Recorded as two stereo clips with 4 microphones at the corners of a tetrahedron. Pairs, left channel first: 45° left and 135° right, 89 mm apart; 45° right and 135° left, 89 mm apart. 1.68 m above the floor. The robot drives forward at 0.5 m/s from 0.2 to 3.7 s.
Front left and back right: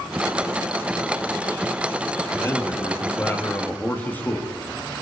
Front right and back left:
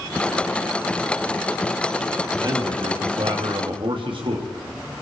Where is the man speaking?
105° left, 3.5 m; by 4.5 s 115° left, 3.5 m.